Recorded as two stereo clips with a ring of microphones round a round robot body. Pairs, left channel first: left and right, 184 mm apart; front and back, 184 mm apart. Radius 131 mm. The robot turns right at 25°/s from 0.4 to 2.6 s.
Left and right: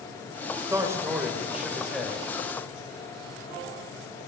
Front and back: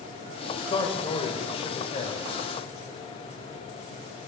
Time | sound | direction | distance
0.7 | a man speaking | 35° right | 1.2 m